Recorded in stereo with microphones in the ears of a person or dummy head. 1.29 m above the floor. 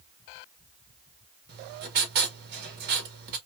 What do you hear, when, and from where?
1.5 s writing: 55° right (ahead or behind), 1.5 m